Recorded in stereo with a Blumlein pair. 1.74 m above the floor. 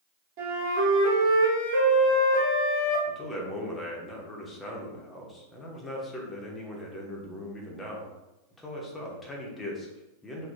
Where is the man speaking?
15° left, 0.7 m.